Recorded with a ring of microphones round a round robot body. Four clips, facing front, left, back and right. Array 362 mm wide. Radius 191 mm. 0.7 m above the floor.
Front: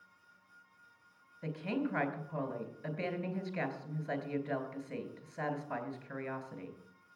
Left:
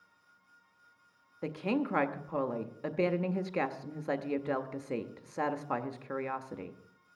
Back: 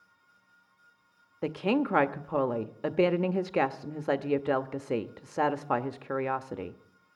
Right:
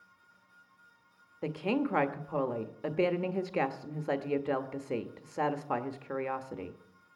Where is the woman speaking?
175° right, 1.0 m.